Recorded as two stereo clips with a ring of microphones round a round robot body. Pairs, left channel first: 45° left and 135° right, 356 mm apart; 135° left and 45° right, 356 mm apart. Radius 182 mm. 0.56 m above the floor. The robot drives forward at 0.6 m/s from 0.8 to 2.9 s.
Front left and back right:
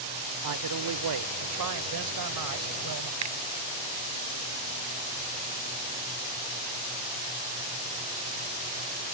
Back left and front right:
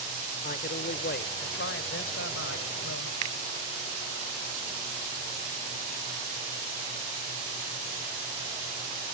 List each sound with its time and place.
0.4 s a man speaking: 165° right; by 3.1 s 170° right
3.2 s a finger snap: 90° right